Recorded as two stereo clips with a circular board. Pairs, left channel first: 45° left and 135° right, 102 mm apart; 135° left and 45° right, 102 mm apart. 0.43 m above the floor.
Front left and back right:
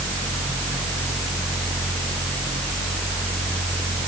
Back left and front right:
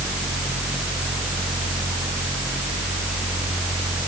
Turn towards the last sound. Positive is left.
No sound to turn to.